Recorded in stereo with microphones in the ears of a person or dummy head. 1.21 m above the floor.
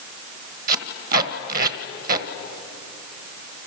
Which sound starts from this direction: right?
Tape being pulled, at 0.7 s.